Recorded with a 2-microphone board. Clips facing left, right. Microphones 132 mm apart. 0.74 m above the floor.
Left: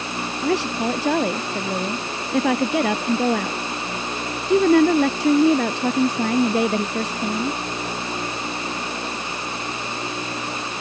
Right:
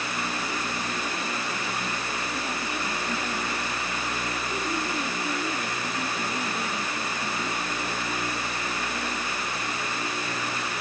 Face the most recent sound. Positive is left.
turn(degrees=80)